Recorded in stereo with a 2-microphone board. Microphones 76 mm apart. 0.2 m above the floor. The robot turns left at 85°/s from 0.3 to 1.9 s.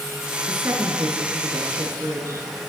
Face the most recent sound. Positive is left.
turn(degrees=-140)